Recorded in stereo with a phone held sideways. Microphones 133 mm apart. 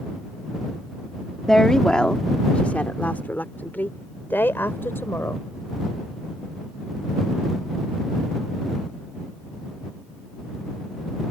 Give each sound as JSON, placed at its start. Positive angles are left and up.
{"t": 1.5, "sound": "a woman speaking", "side_deg": 5}